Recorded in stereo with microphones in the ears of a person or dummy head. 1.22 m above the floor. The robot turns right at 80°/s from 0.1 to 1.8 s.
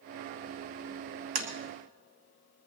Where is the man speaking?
No man speaking in this recording.